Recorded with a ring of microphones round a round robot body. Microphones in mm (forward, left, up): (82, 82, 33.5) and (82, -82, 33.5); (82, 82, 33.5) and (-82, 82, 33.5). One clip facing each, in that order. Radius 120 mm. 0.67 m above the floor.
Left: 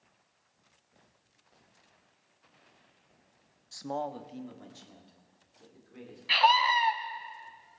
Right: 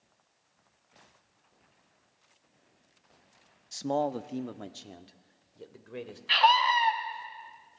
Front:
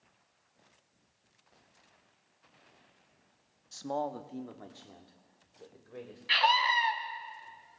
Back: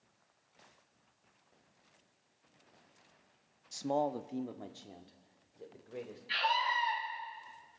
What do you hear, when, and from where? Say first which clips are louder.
3.7 s a man speaking: right 6 dB, back 2 dB; 130° right, 0.7 m; by 6.2 s 105° right, 3 m
6.3 s a scream: right 1 dB, front 6 dB; 5° left, 4.5 m